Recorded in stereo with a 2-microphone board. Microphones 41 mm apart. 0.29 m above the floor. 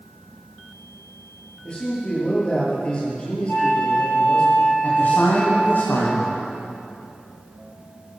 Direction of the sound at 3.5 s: 50° left (ahead or behind).